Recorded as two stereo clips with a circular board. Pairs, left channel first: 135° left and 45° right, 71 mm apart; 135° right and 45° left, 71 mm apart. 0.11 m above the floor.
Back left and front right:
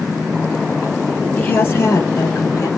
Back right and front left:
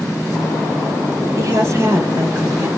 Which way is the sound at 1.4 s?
70° left.